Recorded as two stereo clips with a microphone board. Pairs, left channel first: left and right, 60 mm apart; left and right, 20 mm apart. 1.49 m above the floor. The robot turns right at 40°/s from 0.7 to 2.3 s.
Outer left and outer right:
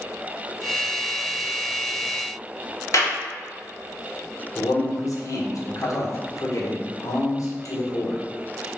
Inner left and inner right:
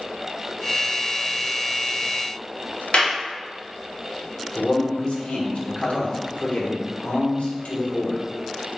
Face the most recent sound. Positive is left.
turn(degrees=65)  # may be behind; listen again after turning